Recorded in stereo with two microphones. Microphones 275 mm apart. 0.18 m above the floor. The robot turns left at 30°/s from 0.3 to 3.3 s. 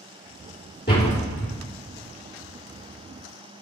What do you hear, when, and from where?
0.9 s a door slam: 35° left (ahead or behind), 2.5 m; by 1.5 s 50° left (ahead or behind), 2.5 m